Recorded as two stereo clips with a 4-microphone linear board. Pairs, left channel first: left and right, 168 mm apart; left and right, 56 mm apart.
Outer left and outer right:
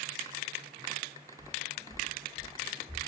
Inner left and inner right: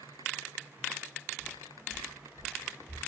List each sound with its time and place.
1.4 s footsteps: 40° right (ahead or behind), 0.8 m; by 3.0 s 10° left (ahead or behind), 0.6 m